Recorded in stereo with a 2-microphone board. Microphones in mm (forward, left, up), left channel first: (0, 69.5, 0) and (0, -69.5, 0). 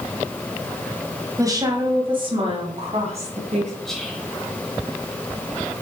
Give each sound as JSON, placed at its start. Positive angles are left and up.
{"t": 1.4, "sound": "a woman speaking", "side_deg": -25, "distance_m": 1.7}
{"t": 3.9, "sound": "whispering", "side_deg": 5, "distance_m": 1.3}